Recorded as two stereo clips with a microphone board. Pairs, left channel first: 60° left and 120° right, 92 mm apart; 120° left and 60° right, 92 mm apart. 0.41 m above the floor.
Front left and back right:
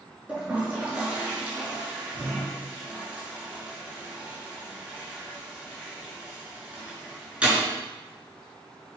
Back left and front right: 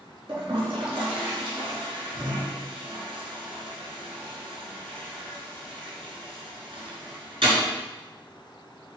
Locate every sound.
0.3 s a toilet flushing: 45° right, 5 m